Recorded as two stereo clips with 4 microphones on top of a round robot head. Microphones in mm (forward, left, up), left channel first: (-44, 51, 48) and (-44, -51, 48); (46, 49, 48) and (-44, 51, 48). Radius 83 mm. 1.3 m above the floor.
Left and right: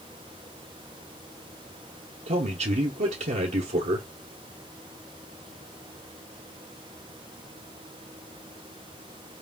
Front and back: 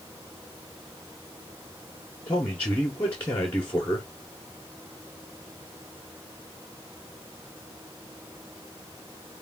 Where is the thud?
I don't hear a thud.